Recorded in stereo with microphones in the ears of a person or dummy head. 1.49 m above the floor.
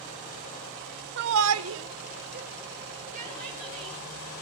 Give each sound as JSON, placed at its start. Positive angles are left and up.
{"t": 1.2, "sound": "a shout", "side_deg": -55, "distance_m": 0.9}